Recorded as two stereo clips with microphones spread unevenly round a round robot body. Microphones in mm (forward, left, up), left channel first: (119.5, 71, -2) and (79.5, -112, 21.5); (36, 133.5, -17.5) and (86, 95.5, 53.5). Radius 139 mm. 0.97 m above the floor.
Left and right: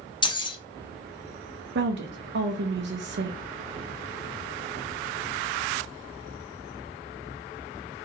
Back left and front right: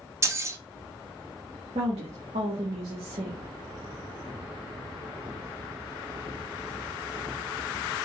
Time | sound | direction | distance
0.2 | keys jangling | 15° left | 1.1 m
1.8 | a woman speaking | 90° right | 0.6 m